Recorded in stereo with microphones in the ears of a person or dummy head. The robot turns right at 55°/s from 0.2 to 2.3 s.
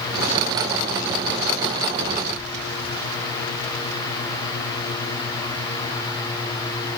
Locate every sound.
Only background noise.